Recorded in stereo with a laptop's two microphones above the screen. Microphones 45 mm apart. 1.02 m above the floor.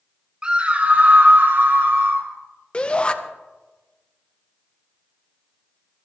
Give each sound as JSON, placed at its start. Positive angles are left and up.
{"t": 0.4, "sound": "a scream", "side_deg": -20, "distance_m": 1.9}
{"t": 2.7, "sound": "a shout", "side_deg": 25, "distance_m": 0.7}